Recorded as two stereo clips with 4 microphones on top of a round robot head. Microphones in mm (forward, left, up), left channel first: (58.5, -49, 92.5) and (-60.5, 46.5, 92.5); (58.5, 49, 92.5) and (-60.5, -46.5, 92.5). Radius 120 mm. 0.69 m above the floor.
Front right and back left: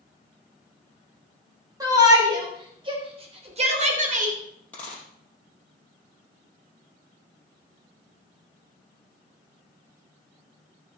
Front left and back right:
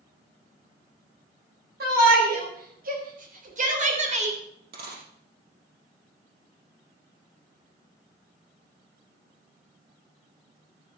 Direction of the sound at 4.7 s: 120° right.